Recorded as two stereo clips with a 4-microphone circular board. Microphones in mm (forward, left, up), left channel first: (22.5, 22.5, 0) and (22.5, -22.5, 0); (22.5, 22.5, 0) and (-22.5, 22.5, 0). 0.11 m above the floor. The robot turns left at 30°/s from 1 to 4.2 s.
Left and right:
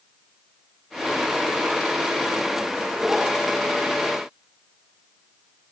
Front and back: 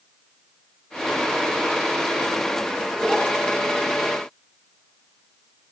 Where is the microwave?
No microwave in this recording.